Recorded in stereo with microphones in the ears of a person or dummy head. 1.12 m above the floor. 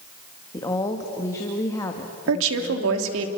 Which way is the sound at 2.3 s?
75° right (ahead or behind).